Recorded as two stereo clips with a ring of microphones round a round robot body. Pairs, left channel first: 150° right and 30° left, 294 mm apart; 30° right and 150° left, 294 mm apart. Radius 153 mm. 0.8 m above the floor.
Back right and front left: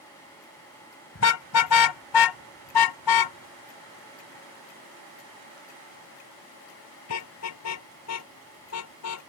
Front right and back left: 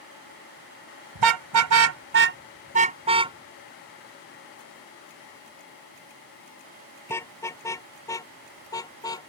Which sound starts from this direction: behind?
A car horn, at 1.1 s.